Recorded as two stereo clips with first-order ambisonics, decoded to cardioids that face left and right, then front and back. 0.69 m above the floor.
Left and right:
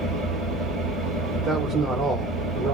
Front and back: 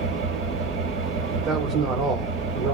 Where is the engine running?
Straight behind, 4 m.